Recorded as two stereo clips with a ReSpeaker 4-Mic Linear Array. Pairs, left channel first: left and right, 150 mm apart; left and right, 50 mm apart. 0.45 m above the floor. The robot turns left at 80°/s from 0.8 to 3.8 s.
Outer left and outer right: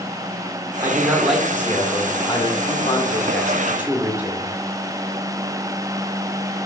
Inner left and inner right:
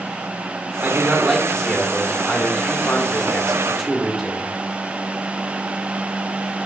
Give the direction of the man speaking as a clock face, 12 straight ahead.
5 o'clock.